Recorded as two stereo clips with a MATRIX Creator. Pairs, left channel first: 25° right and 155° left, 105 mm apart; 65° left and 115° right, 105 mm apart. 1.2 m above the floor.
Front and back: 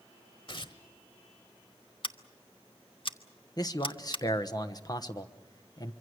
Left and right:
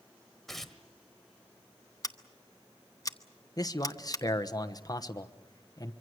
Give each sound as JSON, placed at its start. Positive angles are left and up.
{"t": 0.5, "sound": "tearing paper", "azimuth_deg": -20, "distance_m": 1.4}
{"t": 2.0, "sound": "scissors", "azimuth_deg": 10, "distance_m": 0.9}
{"t": 3.6, "sound": "a man speaking", "azimuth_deg": 20, "distance_m": 1.1}